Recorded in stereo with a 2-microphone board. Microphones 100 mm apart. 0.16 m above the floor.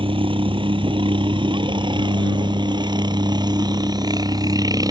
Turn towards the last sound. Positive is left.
turn(degrees=-35)  # may be behind; listen again after turning